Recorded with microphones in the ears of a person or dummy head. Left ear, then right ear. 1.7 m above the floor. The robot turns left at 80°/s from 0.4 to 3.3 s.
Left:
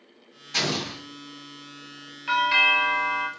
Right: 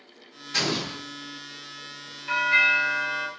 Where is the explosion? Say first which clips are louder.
Even; 175° left, 1.9 m; by 1.0 s 135° left, 1.9 m.